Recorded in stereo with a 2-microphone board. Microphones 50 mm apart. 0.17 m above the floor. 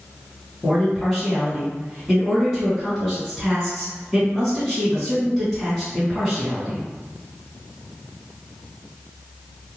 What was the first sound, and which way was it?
A man speaking, 5° left (ahead or behind).